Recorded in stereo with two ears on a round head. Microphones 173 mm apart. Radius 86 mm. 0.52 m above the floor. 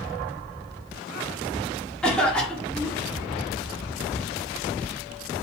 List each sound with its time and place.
2.0 s a cough: 5° left (ahead or behind), 0.8 m